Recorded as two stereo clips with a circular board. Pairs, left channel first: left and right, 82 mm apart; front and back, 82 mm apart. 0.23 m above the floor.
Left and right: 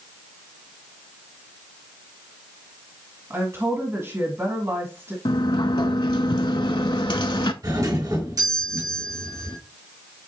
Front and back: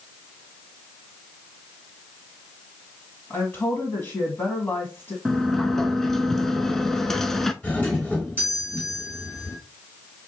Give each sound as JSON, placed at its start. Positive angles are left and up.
{"t": 3.3, "sound": "a woman speaking", "azimuth_deg": -50, "distance_m": 1.6}
{"t": 5.2, "sound": "a sliding door", "azimuth_deg": 85, "distance_m": 0.6}
{"t": 7.6, "sound": "a doorbell", "azimuth_deg": -65, "distance_m": 3.0}